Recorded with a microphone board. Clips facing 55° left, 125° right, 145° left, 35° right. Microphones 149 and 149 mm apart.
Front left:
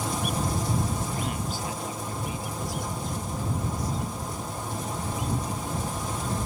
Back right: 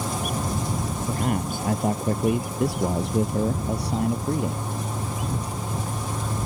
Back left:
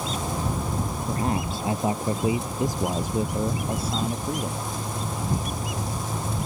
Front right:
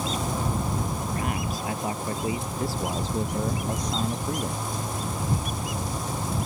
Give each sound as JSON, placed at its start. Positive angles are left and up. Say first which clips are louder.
{"t": 1.1, "sound": "a man speaking", "louder": "back right 6 dB, back left 3 dB", "azimuth_deg": -160}